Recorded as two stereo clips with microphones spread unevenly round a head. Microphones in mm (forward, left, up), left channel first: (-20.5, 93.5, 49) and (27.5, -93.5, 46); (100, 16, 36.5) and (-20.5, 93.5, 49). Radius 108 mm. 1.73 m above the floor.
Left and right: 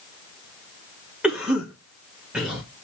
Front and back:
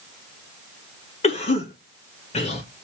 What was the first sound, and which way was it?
A cough, 10° left.